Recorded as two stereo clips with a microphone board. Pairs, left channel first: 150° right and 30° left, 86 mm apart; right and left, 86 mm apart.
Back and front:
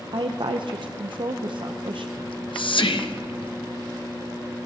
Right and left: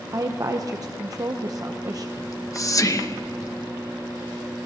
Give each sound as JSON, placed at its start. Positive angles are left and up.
{"t": 0.1, "sound": "a woman speaking", "azimuth_deg": 45, "distance_m": 0.6}
{"t": 2.2, "sound": "whispering", "azimuth_deg": -140, "distance_m": 1.0}